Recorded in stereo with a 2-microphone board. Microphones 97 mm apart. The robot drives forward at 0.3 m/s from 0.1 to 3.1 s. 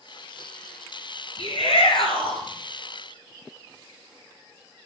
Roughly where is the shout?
Left.